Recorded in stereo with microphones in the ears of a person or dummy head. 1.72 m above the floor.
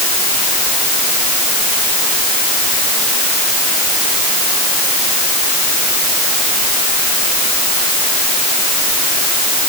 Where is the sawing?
I don't hear sawing.